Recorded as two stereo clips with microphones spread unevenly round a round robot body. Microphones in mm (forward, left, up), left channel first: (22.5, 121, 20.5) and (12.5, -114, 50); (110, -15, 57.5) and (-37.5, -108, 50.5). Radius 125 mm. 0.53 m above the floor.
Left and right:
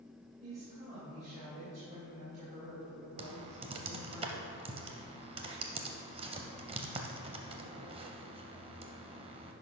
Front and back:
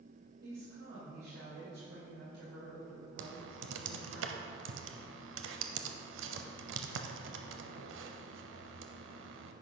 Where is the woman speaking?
155° right, 2.5 m.